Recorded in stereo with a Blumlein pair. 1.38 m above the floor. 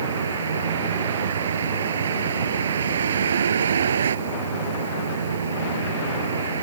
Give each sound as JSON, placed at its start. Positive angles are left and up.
{"t": 0.0, "sound": "a vehicle", "azimuth_deg": -65}